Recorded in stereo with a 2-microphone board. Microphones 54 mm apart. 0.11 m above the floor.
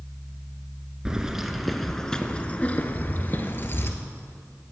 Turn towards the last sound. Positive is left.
turn(degrees=45)  # may be behind; listen again after turning